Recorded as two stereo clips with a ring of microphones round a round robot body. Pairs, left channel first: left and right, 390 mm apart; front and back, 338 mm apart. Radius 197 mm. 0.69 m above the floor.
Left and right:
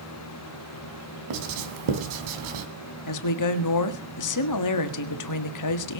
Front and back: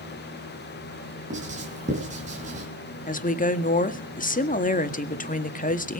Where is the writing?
105° right, 3.5 m.